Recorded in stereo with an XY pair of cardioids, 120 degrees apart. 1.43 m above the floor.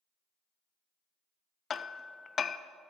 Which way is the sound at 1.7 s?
35° left.